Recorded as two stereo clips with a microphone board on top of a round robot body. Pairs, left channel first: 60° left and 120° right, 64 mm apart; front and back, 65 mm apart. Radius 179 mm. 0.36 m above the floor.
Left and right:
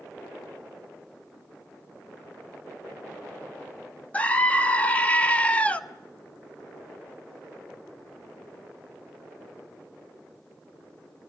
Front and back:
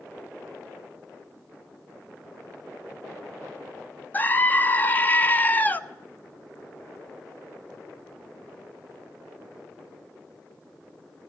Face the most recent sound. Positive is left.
turn(degrees=15)